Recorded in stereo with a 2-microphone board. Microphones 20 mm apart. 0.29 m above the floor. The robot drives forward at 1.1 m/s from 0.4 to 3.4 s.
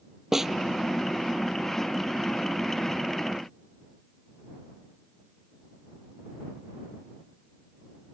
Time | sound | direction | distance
0.3 | a snare drum | 20° right (ahead or behind) | ?